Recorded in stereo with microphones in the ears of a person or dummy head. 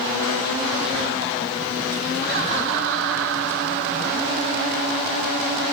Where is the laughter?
60° right (ahead or behind), 1.8 m; by 5.1 s 45° right (ahead or behind), 2.5 m.